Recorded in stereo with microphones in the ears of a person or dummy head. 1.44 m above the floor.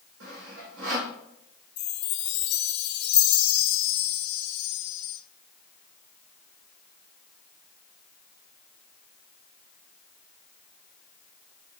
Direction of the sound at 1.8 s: 55° left (ahead or behind).